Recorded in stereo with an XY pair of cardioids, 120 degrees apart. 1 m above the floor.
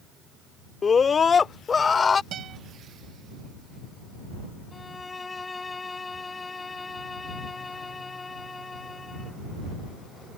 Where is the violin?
20° left.